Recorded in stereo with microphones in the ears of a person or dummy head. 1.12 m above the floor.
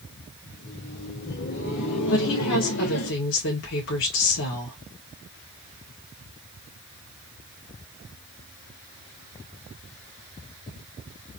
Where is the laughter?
45° left (ahead or behind), 1.7 m; by 3.1 s 75° left (ahead or behind), 1.5 m.